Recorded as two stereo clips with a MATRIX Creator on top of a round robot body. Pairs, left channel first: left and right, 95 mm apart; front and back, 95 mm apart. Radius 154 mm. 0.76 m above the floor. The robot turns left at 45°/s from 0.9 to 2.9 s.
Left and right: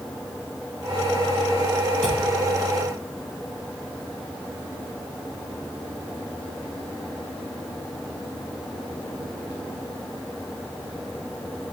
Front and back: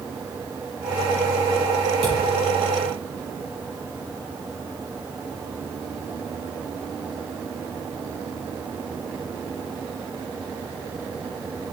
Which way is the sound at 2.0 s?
175° left.